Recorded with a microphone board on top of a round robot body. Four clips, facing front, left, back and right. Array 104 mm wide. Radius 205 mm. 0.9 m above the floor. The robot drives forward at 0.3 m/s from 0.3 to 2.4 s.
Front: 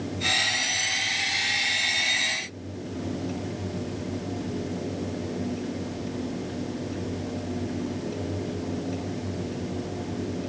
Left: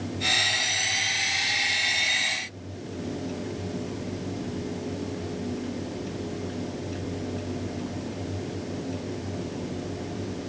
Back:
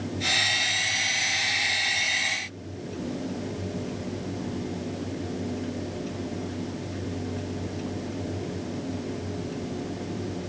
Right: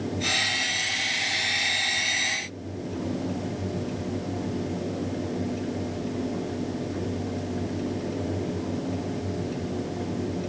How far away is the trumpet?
No trumpet in this recording.